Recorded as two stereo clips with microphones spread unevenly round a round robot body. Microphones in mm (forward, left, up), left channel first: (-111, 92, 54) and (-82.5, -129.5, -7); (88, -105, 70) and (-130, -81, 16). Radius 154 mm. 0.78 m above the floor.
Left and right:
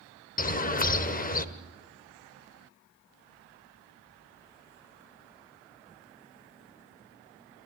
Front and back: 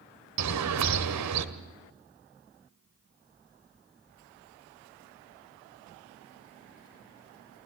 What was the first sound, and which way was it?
A bird, 150° left.